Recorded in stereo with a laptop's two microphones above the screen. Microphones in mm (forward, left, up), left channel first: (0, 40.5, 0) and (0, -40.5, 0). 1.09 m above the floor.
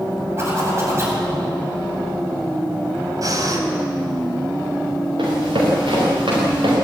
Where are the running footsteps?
80° right, 9 m; by 6.7 s 85° right, 9 m.